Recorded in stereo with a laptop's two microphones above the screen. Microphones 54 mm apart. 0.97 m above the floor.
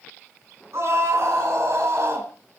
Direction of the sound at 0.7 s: 55° right (ahead or behind).